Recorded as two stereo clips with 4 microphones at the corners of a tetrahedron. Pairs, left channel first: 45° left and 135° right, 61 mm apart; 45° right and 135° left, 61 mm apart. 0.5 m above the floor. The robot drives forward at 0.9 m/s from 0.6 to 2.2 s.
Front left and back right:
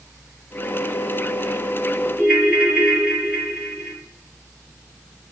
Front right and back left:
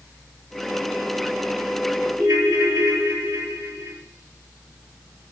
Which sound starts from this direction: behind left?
A ringtone, at 2.2 s.